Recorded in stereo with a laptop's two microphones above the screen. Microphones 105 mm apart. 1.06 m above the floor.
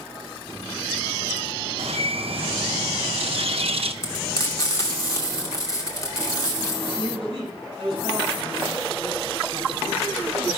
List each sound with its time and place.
1.8 s a bird: 65° right (ahead or behind), 0.7 m
4.0 s frying: 30° left (ahead or behind), 2.5 m
6.9 s a man speaking: 45° right (ahead or behind), 5.5 m